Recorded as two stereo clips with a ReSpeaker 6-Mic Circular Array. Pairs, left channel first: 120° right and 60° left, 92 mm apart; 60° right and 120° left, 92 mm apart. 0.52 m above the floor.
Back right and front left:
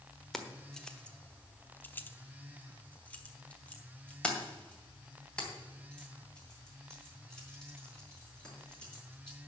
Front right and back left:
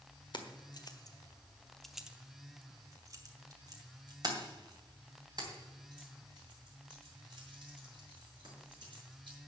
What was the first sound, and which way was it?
Keys jangling, 35° right.